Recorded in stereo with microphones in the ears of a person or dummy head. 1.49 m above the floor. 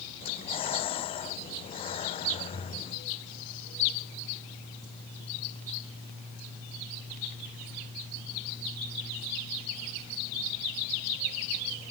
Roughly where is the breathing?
Left.